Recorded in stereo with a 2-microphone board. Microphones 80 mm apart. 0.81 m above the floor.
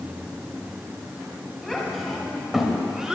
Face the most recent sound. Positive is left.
turn(degrees=-10)  # may be behind; listen again after turning